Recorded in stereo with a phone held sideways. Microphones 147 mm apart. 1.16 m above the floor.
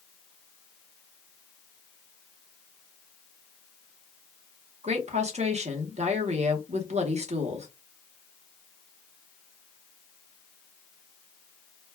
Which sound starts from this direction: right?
A woman speaking, at 4.8 s.